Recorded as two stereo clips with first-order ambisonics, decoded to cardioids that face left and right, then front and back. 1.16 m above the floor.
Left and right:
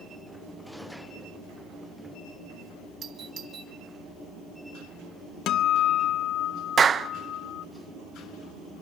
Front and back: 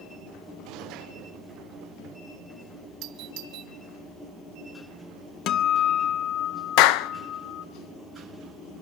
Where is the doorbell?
150° right, 1.4 m.